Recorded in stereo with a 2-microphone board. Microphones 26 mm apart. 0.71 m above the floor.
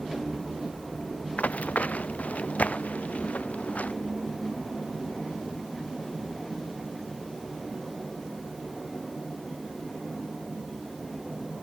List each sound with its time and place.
1.4 s running footsteps: 85° left